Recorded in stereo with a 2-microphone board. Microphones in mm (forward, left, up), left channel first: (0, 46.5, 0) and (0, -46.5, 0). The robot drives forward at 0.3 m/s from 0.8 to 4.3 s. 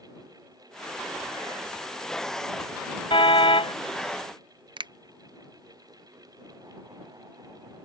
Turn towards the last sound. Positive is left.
turn(degrees=-55)  # may be behind; listen again after turning